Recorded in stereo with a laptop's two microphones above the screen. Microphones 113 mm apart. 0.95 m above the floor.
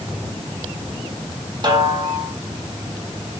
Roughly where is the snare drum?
Right.